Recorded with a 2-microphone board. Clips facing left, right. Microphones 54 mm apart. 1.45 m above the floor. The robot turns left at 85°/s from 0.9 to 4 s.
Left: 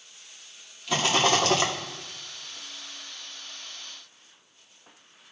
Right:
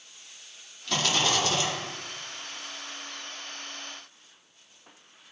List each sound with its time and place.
0.9 s a rattle: 170° left, 1.4 m; by 1.7 s 100° left, 1.4 m